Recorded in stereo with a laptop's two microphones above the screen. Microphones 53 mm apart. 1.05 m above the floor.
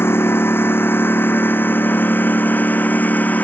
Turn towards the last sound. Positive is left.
turn(degrees=30)  # may be behind; listen again after turning